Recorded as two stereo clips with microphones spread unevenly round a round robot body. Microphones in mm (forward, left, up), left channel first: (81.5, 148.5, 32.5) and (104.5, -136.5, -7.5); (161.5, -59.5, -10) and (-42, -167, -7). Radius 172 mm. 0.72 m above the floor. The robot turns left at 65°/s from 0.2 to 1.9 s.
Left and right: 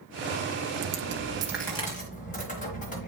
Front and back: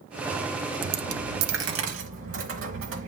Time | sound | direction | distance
0.8 | a dropped coin | 130° right | 1.1 m